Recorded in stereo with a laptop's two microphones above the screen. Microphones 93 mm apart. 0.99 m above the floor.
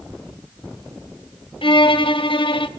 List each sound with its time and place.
1.6 s a violin: 65° left (ahead or behind), 0.8 m